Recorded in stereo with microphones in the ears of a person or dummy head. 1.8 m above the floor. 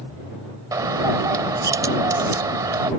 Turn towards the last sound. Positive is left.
turn(degrees=-20)  # may be behind; listen again after turning